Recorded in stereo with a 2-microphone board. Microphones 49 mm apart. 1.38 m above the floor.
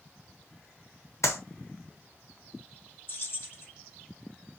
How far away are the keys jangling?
About 1.1 m.